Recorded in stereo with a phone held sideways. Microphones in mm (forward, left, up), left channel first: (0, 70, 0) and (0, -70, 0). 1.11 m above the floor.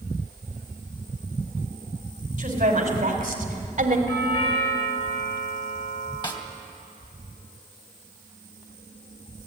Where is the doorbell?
65° left (ahead or behind), 7.5 m.